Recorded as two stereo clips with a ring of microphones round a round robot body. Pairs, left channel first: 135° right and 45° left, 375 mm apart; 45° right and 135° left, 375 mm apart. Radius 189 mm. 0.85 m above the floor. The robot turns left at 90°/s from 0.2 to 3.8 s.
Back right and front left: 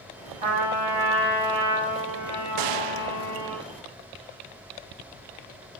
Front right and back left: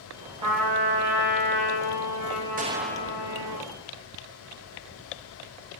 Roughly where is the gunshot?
Left.